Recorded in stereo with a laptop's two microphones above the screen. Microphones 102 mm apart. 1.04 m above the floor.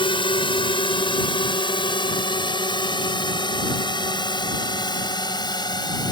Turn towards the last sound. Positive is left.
turn(degrees=45)  # may be behind; listen again after turning